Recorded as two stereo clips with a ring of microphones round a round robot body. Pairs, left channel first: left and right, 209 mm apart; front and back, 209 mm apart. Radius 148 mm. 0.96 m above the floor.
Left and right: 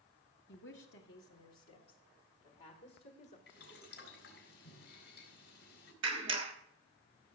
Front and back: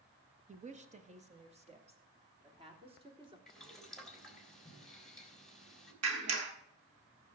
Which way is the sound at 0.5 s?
130° left.